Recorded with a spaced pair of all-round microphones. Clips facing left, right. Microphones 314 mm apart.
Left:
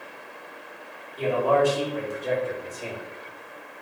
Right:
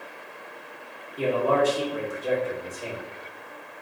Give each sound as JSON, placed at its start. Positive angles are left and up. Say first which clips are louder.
{"t": 1.2, "sound": "a man speaking", "louder": "left 1 dB", "side_deg": -30, "distance_m": 1.8}